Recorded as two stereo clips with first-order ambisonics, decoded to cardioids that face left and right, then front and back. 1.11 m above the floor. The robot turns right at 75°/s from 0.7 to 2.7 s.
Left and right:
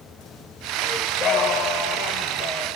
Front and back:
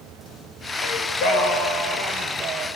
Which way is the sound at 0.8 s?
10° right.